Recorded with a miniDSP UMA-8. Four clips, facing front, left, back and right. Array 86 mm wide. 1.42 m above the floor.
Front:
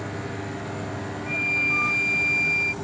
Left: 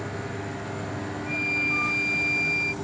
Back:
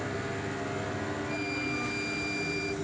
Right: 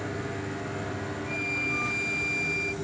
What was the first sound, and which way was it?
An insect, 35° left.